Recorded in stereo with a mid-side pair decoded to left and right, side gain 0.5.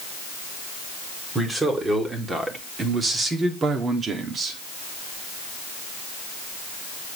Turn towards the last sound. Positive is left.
turn(degrees=-50)